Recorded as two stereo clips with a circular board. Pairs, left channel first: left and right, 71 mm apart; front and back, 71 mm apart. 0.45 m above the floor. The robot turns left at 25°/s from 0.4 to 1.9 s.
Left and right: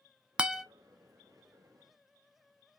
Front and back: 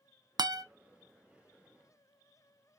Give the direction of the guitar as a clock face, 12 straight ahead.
6 o'clock.